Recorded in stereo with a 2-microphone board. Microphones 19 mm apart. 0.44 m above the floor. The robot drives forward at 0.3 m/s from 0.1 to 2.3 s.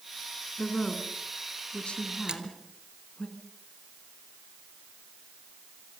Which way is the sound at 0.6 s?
75° left (ahead or behind).